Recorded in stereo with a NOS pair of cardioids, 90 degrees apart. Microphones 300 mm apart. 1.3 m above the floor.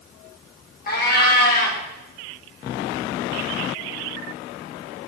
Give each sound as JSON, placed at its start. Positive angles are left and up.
{"t": 0.9, "sound": "a cat meowing", "azimuth_deg": 30, "distance_m": 2.5}